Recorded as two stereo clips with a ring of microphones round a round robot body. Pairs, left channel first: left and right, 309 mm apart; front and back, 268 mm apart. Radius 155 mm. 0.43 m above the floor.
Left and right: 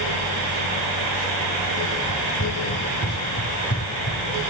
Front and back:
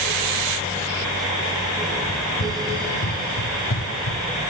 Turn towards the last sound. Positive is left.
turn(degrees=35)